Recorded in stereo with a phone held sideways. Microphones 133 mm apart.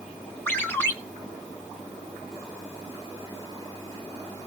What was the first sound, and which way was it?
A ringtone, 20° left (ahead or behind).